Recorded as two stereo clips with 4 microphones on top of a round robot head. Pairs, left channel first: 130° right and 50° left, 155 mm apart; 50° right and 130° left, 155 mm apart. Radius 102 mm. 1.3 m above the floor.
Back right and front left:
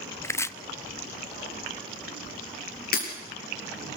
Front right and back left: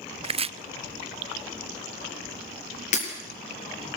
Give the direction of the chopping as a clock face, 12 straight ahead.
7 o'clock.